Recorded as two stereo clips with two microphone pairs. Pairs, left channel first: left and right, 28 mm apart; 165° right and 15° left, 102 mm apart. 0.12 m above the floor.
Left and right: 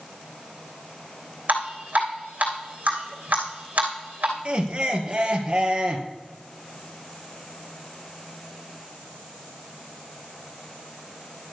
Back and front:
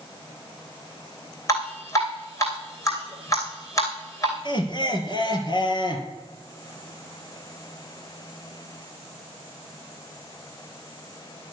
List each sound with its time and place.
1.5 s dripping: 105° right, 3 m
4.5 s laughter: 130° right, 2.5 m